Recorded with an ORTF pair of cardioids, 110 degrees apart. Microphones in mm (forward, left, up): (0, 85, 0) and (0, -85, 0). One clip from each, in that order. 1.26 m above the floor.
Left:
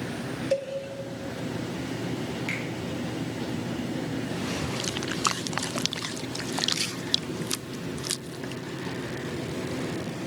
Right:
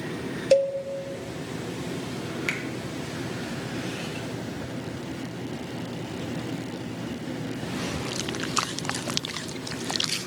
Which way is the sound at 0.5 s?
40° right.